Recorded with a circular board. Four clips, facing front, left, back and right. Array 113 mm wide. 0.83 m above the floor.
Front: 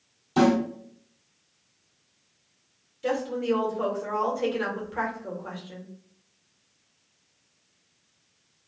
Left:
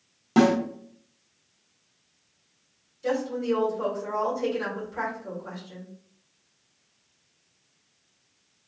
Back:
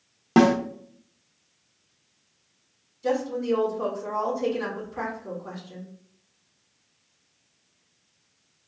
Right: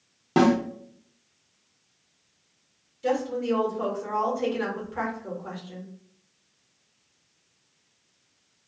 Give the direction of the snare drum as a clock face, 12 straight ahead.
6 o'clock.